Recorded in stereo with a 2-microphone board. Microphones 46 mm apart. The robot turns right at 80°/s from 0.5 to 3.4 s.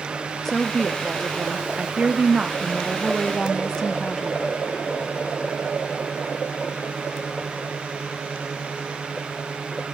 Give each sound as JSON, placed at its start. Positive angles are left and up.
{"t": 0.5, "sound": "a woman speaking", "side_deg": 10, "distance_m": 0.6}